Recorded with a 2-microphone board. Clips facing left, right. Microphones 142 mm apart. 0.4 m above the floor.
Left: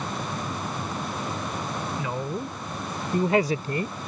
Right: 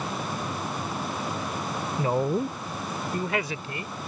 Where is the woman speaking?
40° right (ahead or behind); by 4.0 s 55° left (ahead or behind).